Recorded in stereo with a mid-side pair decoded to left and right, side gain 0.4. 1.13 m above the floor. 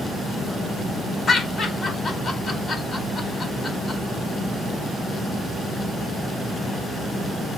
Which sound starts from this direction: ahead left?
Laughter, at 1.3 s.